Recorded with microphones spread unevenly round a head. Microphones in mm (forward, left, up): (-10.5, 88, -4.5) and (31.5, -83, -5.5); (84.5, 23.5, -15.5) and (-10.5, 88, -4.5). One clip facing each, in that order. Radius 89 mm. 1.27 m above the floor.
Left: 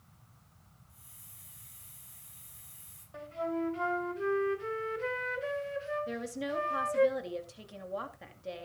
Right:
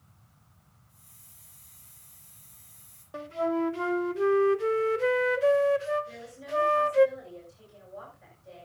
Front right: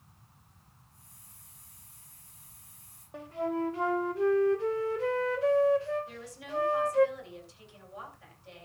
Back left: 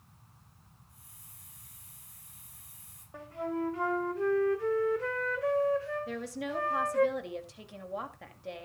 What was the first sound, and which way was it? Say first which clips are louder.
A hiss: left 1 dB, back left 1 dB; 170° right.